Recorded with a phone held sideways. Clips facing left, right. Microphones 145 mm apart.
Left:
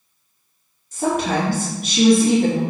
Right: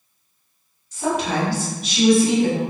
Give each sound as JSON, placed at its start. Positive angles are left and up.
{"t": 0.9, "sound": "a woman speaking", "side_deg": 50, "distance_m": 1.1}